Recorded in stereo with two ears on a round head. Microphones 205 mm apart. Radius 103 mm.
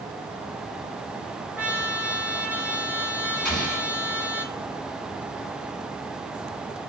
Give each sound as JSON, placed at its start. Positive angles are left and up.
{"t": 1.6, "sound": "a trumpet", "side_deg": -5, "distance_m": 1.6}
{"t": 3.5, "sound": "an explosion", "side_deg": 0, "distance_m": 2.5}